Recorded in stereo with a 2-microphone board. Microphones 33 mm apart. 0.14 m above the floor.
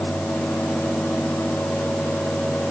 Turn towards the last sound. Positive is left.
No sound to turn to.